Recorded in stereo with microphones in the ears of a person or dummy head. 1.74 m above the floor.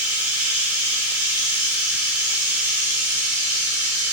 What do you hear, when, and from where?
0.0 s running water: 5° right (ahead or behind), 1.0 m